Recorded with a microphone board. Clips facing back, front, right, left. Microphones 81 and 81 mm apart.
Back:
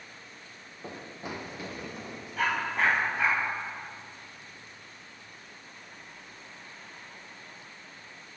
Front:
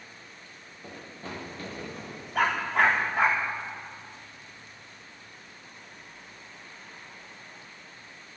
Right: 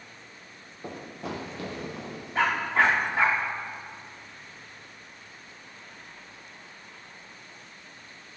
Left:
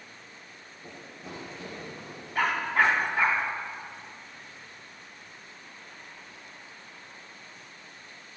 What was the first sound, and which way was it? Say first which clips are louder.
Running footsteps: back 2 dB, right 8 dB; 115° right.